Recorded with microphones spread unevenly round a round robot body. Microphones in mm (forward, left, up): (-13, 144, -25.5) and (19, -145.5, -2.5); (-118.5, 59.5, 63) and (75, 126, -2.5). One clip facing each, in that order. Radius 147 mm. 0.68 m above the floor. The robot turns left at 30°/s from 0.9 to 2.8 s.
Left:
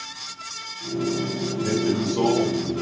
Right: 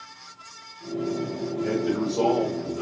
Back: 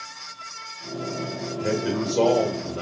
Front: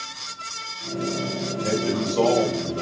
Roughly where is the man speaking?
Left.